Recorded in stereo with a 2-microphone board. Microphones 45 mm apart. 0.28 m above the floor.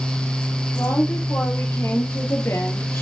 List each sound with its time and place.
0.8 s a woman speaking: 70° left (ahead or behind), 5.5 m; by 3.0 s 80° left, 4 m